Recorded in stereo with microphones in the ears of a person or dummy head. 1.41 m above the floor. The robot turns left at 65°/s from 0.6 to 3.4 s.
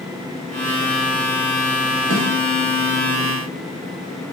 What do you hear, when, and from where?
2.1 s a snare drum: 40° right (ahead or behind), 1.1 m; by 2.3 s 30° right (ahead or behind), 1.1 m